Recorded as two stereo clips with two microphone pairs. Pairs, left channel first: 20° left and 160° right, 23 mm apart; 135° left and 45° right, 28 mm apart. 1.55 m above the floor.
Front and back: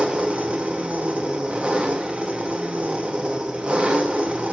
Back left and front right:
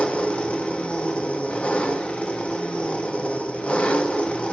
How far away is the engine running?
About 2.0 m.